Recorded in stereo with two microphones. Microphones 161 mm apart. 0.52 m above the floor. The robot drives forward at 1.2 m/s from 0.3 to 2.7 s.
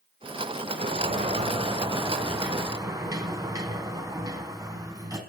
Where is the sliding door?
55° right (ahead or behind), 1.4 m; by 5.2 s 20° right (ahead or behind), 3 m.